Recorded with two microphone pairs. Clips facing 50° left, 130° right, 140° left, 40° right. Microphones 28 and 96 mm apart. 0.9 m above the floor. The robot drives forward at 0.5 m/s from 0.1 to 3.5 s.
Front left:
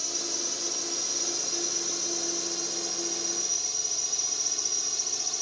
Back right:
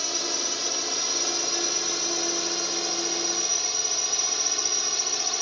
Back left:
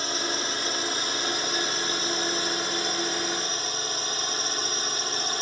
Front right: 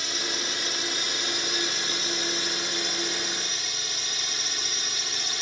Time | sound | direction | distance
0.0 | a drone | straight behind | ?